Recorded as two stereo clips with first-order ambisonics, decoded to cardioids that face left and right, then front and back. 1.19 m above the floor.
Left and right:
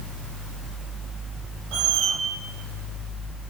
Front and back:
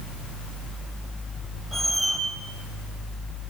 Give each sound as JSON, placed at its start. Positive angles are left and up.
{"t": 1.7, "sound": "a squeak", "azimuth_deg": -85, "distance_m": 5.5}